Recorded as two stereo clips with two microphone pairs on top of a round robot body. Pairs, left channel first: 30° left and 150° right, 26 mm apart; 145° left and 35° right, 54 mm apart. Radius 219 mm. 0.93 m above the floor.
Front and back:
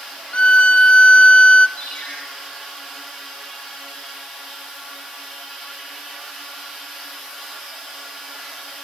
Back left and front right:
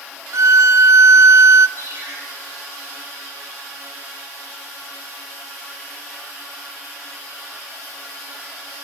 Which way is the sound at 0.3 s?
5° right.